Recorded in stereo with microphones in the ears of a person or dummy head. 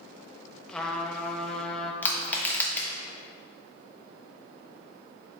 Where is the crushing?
5° left (ahead or behind), 1.2 m.